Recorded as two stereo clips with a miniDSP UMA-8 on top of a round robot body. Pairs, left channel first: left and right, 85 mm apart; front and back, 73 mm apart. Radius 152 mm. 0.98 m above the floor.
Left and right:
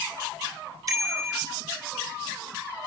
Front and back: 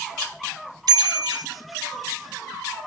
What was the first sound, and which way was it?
A bicycle bell, 145° right.